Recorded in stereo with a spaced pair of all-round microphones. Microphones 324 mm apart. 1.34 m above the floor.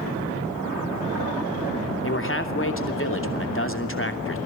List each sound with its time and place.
2.0 s a man speaking: 40° left (ahead or behind), 3 m